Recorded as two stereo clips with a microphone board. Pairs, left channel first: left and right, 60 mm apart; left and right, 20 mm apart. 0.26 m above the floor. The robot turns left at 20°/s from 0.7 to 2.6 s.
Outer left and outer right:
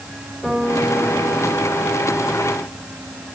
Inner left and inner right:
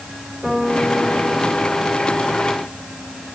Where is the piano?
10° left (ahead or behind), 8 m; by 1.8 s 30° left (ahead or behind), 8 m.